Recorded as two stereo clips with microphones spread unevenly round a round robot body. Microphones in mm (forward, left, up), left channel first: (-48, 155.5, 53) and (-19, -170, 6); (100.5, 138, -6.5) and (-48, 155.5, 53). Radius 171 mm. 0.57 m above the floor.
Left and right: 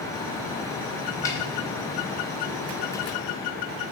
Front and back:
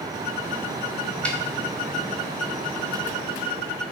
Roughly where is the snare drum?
Ahead.